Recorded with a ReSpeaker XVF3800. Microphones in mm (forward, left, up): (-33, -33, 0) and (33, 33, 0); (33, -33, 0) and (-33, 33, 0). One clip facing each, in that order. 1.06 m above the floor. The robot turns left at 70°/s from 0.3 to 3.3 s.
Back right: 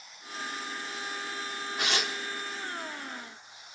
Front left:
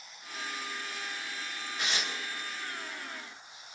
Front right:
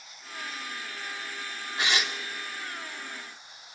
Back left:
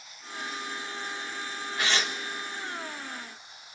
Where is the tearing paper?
110° right, 2.5 m; by 2.1 s 135° right, 2.5 m.